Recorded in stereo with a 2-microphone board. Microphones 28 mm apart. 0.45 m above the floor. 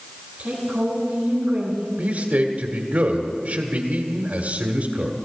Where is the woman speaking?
60° right (ahead or behind), 5.5 m; by 1.9 s 50° right (ahead or behind), 4 m.